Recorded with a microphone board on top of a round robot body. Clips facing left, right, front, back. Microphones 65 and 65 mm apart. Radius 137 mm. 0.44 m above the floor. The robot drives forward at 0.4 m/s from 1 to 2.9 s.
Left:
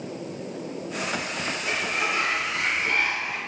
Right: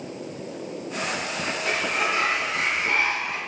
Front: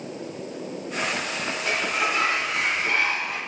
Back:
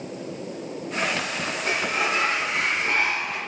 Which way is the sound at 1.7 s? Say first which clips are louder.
Right 2 dB, even; 120° right.